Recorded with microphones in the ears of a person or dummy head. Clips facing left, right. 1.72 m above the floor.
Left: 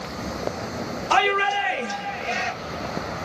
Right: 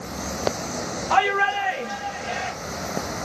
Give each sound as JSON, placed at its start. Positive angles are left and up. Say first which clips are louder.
{"t": 1.1, "sound": "a shout", "louder": "even", "side_deg": 40, "distance_m": 2.5}